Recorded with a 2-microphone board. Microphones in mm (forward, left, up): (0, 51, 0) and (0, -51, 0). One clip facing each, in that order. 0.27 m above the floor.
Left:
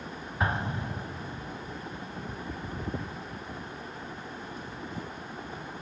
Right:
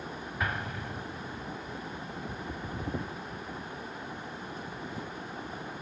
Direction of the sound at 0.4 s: 30° left (ahead or behind).